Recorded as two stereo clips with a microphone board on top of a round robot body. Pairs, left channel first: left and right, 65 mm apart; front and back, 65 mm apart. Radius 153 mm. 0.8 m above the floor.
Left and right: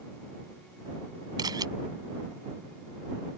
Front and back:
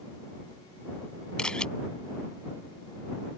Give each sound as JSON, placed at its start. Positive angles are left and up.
{"t": 1.4, "sound": "a camera shutter", "azimuth_deg": -80}